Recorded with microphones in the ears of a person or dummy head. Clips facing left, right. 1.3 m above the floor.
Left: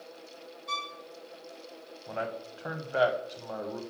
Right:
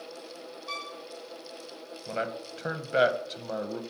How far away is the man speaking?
About 0.7 m.